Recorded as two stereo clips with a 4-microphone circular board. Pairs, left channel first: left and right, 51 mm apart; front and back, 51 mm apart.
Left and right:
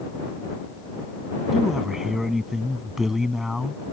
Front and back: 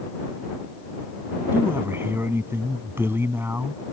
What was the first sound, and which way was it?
A man speaking, 170° right.